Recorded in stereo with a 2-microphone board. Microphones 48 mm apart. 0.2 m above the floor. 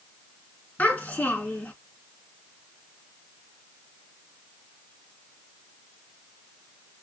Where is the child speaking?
40° left (ahead or behind), 2.0 m.